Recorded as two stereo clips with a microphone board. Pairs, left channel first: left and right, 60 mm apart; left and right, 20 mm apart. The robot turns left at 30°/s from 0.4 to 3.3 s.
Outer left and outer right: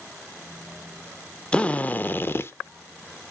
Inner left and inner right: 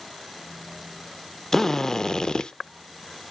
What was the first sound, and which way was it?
A drill, 15° left (ahead or behind).